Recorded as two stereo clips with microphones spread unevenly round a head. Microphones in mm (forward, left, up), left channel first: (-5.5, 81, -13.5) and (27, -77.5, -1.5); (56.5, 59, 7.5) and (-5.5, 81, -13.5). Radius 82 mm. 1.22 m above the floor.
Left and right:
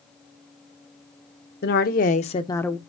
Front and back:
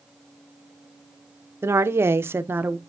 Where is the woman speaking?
120° left, 1.2 m; by 2.8 s 170° right, 0.6 m.